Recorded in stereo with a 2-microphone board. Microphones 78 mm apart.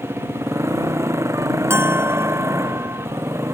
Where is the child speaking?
No child speaking in this recording.